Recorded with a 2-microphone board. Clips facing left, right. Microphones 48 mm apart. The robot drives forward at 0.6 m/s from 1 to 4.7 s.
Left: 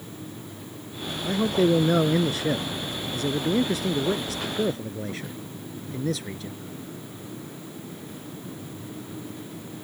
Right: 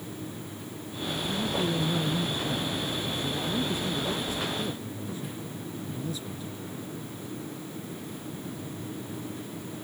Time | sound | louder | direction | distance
1.2 | a man speaking | left 9 dB | 70° left (ahead or behind) | ?